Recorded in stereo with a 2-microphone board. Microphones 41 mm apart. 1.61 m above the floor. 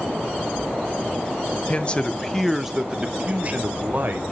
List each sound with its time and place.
1.7 s a man speaking: 35° left (ahead or behind), 0.8 m; by 4.2 s 50° right (ahead or behind), 1.1 m